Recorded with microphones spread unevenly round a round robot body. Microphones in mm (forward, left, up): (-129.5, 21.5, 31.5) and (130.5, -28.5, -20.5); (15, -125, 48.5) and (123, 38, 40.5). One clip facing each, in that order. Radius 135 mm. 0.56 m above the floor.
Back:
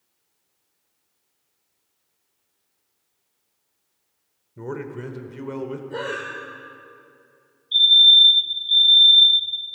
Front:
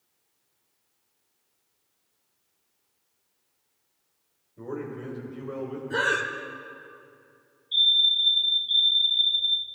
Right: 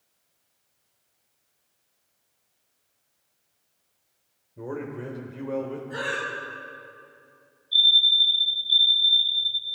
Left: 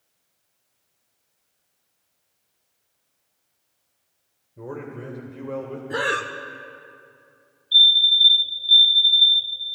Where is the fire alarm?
100° left, 2.5 m.